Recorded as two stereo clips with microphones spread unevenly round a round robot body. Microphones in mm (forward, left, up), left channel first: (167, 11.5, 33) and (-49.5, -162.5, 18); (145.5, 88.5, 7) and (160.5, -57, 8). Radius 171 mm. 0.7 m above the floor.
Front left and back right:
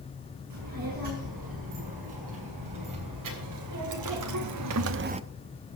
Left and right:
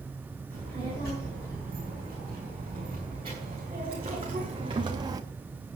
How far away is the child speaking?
About 6.5 m.